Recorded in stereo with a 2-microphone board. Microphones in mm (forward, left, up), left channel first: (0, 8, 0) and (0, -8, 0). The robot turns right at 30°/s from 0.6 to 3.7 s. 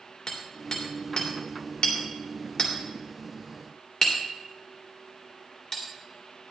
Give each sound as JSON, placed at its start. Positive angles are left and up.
{"t": 0.3, "sound": "hammering", "side_deg": 50, "distance_m": 2.5}